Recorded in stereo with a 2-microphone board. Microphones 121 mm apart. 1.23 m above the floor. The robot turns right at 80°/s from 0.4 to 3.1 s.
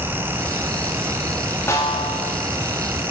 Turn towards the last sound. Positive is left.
turn(degrees=135)